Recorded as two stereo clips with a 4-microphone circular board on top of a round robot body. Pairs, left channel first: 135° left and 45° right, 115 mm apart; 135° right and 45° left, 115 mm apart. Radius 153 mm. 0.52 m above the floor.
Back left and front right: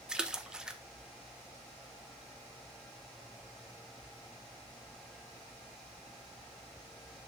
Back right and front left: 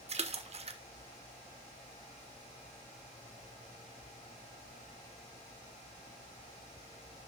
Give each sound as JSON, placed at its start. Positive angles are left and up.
{"t": 0.1, "sound": "a splash", "azimuth_deg": 40, "distance_m": 1.2}